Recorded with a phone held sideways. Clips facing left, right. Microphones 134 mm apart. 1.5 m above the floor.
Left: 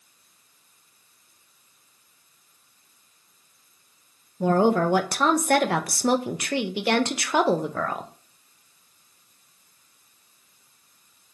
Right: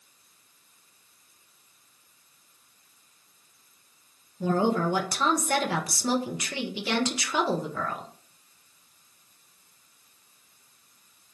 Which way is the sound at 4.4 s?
60° left (ahead or behind).